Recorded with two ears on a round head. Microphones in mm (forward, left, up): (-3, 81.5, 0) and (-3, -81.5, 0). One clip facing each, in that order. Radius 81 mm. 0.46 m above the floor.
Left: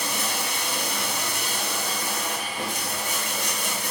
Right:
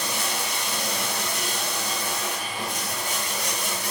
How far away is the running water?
About 5 m.